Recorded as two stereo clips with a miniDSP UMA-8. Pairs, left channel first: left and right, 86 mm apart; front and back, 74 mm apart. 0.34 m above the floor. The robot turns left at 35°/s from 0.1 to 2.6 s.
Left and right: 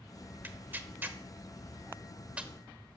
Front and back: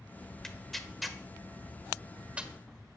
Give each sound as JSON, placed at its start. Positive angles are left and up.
{"t": 0.4, "sound": "tearing paper", "azimuth_deg": -70, "distance_m": 1.1}